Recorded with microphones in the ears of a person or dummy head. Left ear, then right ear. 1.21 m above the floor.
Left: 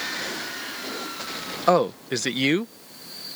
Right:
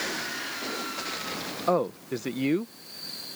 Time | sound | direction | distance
1.7 | a man speaking | 60° left (ahead or behind) | ?